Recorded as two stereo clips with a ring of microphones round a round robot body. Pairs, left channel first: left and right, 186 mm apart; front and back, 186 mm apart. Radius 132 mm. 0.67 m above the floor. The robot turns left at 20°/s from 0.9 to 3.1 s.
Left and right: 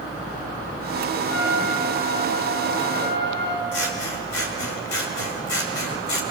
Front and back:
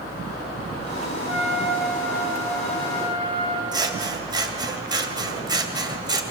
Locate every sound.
1.3 s a trumpet: 100° left, 5 m; by 3.6 s 65° left, 5 m
3.7 s scissors: 110° left, 2.5 m